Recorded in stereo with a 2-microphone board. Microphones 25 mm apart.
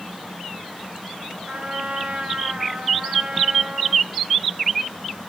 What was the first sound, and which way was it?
A trumpet, 50° right (ahead or behind).